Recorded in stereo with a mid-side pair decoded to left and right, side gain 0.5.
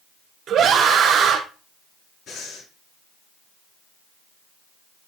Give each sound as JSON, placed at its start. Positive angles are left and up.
{"t": 0.5, "sound": "a scream", "azimuth_deg": -60, "distance_m": 0.7}
{"t": 2.3, "sound": "breathing", "azimuth_deg": 55, "distance_m": 5.5}